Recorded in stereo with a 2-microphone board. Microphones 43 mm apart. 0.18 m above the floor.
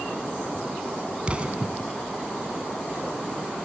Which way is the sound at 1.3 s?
30° right (ahead or behind).